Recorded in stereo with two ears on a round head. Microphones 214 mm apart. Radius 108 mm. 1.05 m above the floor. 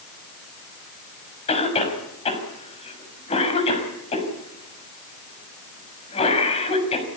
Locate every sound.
1.5 s a cough: 25° left (ahead or behind), 6 m